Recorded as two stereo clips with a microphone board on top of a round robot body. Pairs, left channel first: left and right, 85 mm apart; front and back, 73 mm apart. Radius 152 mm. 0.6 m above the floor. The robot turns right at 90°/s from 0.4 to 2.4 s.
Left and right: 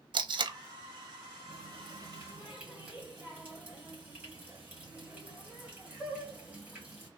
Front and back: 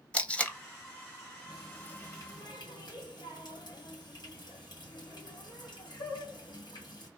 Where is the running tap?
100° right, 1.9 m; by 7.1 s 20° right, 1.9 m.